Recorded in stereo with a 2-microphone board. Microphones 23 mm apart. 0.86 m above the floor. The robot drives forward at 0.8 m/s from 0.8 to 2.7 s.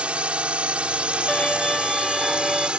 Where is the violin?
30° left (ahead or behind); by 2.7 s 10° left (ahead or behind).